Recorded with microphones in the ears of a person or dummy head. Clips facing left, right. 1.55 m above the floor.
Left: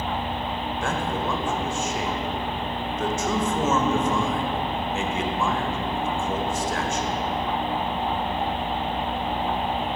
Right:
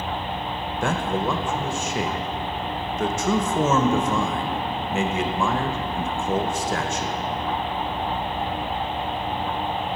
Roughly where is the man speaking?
Right.